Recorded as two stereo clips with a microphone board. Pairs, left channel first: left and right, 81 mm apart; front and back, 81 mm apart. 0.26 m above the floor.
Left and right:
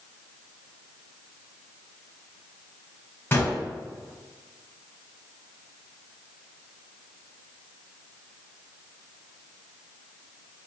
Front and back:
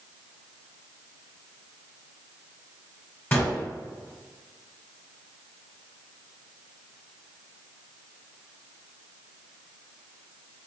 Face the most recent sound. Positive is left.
turn(degrees=45)